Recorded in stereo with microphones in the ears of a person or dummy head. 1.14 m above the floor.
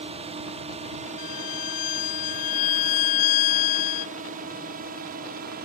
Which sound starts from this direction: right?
A drone, at 0.0 s.